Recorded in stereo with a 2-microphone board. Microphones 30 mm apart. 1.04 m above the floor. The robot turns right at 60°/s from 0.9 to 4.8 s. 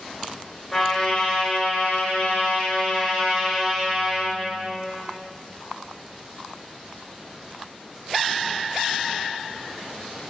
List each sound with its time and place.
0.7 s a trumpet: 20° left, 4 m; by 4.3 s 135° right, 4 m